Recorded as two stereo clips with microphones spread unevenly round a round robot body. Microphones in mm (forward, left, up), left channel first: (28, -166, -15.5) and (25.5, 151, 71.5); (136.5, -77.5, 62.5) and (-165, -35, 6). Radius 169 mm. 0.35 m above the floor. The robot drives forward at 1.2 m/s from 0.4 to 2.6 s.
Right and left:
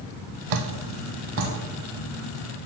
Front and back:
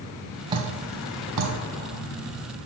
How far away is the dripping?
About 0.8 m.